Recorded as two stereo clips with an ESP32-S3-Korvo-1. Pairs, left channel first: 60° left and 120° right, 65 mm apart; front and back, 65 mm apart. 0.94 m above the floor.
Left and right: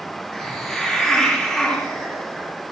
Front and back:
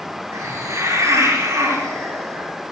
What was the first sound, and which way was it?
A hiss, 155° left.